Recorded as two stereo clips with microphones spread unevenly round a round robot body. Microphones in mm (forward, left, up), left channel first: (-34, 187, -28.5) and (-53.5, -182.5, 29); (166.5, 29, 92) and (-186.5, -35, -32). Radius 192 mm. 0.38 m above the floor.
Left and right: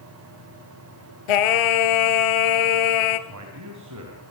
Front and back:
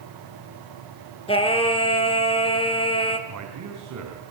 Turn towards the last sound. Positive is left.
turn(degrees=-140)